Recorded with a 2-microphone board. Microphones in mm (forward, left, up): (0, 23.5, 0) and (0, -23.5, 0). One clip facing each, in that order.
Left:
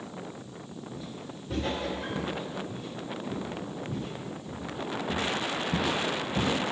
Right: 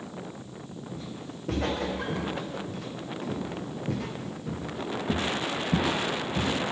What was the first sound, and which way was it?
Footsteps, 70° right (ahead or behind).